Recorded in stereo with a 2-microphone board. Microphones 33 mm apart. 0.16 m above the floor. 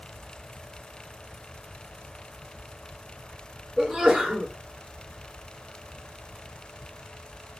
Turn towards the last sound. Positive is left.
turn(degrees=-5)  # may be behind; listen again after turning